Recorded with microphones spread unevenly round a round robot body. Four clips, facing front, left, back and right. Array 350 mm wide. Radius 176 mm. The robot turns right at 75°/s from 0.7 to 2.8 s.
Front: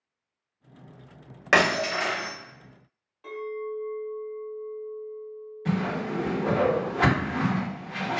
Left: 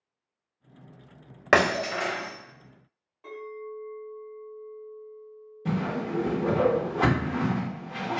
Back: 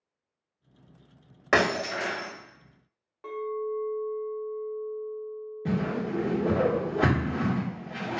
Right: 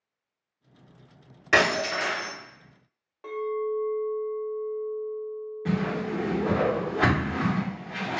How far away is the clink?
About 0.8 m.